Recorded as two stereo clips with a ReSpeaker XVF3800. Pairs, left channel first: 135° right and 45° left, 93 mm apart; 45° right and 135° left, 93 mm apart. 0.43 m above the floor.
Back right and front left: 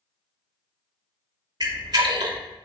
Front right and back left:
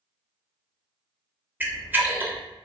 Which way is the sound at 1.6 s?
70° left.